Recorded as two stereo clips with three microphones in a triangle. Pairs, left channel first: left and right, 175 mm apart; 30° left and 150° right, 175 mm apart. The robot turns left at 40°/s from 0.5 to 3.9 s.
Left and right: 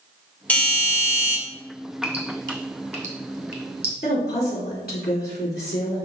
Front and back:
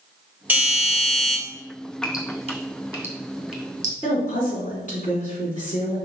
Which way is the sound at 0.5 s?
155° left.